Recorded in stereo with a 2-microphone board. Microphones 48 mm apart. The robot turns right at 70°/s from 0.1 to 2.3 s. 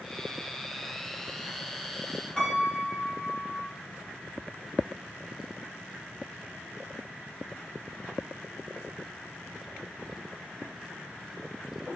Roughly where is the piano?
Centre.